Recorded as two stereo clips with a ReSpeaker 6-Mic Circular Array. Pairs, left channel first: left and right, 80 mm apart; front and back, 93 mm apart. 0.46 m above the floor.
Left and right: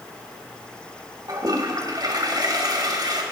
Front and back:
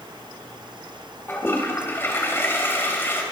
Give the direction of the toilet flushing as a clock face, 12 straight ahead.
2 o'clock.